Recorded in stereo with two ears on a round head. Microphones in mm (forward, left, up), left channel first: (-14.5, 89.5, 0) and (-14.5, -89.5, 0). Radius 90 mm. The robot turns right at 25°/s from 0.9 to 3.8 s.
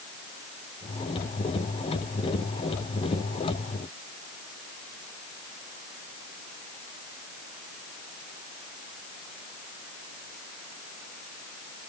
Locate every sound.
Only background noise.